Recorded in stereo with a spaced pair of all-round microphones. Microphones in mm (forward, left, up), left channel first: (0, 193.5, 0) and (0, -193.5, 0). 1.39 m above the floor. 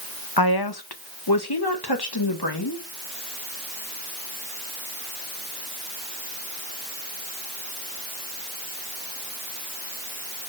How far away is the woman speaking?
About 0.9 m.